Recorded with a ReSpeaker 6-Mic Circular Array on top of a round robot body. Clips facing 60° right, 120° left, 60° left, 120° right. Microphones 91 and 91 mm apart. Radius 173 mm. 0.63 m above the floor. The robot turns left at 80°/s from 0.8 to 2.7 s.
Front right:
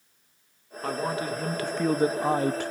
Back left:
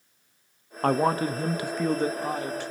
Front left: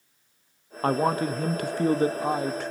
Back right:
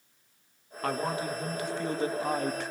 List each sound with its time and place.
0.8 s a man speaking: 110° left, 1.1 m; by 2.7 s 40° right, 1.1 m